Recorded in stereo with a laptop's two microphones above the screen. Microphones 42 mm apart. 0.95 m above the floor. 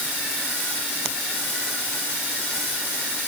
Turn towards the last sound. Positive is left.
No sound to turn to.